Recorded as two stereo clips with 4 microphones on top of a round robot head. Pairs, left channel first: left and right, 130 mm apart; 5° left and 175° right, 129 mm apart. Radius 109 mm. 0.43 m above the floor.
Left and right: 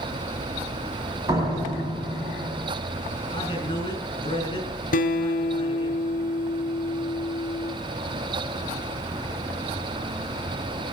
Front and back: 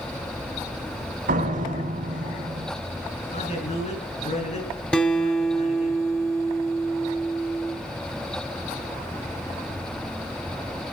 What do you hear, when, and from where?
1.3 s a door slam: 160° right, 3.5 m
3.3 s a man speaking: 40° left, 9.5 m
4.9 s a guitar: 85° left, 2 m